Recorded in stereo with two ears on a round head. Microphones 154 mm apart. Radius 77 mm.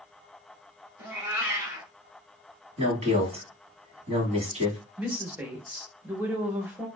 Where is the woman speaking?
10° right (ahead or behind), 0.9 m.